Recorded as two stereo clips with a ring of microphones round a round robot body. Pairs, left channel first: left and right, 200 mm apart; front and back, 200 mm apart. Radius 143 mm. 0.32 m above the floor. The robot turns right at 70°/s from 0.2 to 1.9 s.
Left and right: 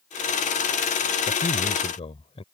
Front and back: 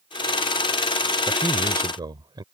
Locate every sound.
1.3 s a man speaking: 85° left; by 2.4 s 130° left